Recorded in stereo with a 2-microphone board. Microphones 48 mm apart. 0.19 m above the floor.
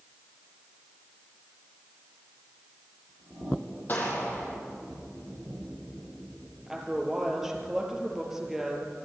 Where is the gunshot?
45° left (ahead or behind), 6.5 m.